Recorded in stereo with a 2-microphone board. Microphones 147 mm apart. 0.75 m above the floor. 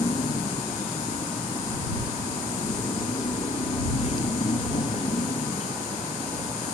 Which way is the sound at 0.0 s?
40° left (ahead or behind).